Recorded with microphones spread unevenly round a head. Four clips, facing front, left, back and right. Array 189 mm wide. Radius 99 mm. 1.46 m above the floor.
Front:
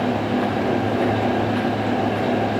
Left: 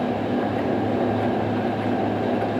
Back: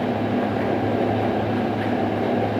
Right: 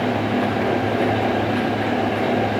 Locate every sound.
Only background noise.